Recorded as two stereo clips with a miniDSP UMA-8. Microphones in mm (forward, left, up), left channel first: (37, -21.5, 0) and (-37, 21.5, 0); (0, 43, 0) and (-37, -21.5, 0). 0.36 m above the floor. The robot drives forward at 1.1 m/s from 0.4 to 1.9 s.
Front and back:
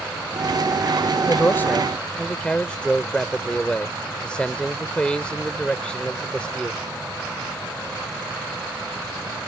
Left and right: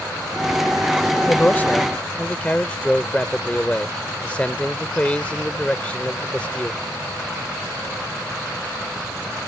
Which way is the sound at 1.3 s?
10° left.